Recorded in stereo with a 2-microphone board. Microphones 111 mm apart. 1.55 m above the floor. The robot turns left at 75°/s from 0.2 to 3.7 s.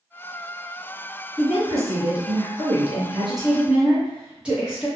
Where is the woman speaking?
5° left, 1.0 m; by 4.9 s 170° right, 1.0 m.